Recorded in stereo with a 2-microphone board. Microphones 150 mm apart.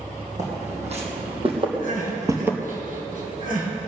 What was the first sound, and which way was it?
Footsteps, 50° right (ahead or behind).